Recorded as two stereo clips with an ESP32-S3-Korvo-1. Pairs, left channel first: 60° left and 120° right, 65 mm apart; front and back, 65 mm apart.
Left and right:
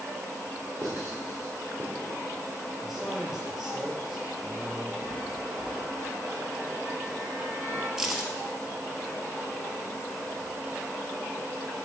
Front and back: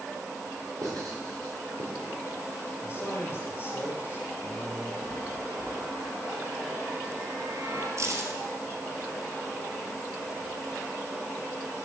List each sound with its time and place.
0.8 s writing: 160° right, 3.5 m
2.8 s a man speaking: 35° right, 2.5 m
5.0 s a chime: 125° right, 3 m
8.0 s keys jangling: 160° left, 1.5 m